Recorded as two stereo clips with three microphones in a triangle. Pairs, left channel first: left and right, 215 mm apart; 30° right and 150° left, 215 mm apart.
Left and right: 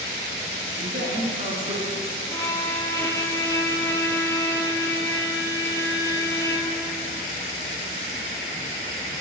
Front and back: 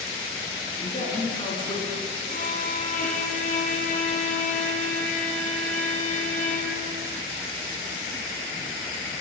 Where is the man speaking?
75° right, 1.6 m; by 1.9 s 60° right, 1.3 m.